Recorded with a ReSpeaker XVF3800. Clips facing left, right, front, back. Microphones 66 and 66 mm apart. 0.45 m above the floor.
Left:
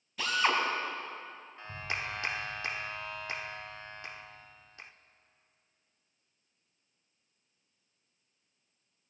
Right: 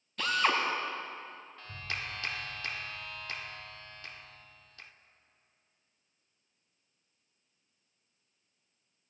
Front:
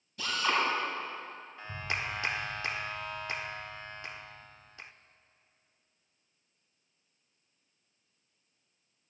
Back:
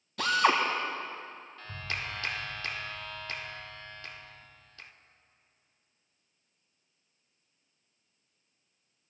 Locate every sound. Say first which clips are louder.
0.2 s a drill: even, back 5 dB; 175° left, 2.5 m
1.6 s a clap: left 3 dB, front 2 dB; 45° left, 0.6 m